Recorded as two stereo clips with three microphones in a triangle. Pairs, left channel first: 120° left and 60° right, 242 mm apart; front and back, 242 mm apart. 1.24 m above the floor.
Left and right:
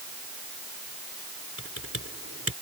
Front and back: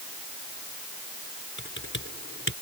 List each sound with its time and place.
1.6 s typing on a keyboard: 35° right